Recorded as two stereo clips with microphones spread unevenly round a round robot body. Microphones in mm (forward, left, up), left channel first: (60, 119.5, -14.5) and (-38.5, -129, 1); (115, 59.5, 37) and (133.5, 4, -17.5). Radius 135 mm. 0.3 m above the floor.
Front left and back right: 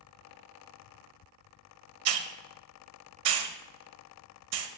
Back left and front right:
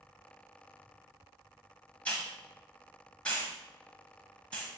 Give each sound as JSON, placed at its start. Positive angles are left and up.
{"t": 2.0, "sound": "a hiss", "azimuth_deg": -135, "distance_m": 0.6}